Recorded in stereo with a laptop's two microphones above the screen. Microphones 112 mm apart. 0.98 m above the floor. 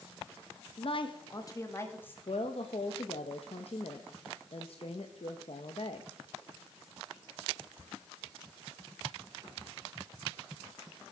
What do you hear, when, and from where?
0.8 s a woman speaking: 60° left (ahead or behind), 1.1 m; by 2.2 s 15° left (ahead or behind), 1.9 m
2.3 s a woman speaking: 60° left (ahead or behind), 1.0 m